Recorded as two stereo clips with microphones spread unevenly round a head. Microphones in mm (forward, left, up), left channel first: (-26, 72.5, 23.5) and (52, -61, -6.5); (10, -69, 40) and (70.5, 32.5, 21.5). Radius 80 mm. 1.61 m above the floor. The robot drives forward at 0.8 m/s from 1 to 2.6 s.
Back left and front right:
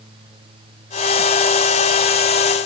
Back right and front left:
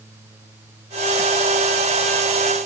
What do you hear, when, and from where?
Only background noise.